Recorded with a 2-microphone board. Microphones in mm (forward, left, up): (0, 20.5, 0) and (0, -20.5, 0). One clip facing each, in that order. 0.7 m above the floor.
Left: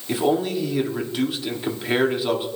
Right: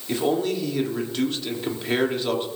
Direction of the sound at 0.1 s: 5° left (ahead or behind).